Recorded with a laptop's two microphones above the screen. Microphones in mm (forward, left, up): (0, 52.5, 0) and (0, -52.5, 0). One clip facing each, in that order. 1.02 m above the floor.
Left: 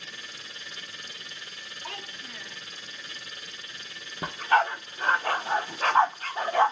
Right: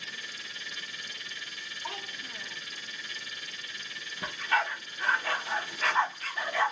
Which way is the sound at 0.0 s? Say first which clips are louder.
Even; 35° left (ahead or behind).